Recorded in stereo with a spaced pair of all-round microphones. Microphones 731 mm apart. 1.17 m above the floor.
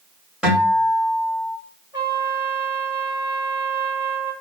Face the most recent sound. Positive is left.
turn(degrees=50)  # may be behind; listen again after turning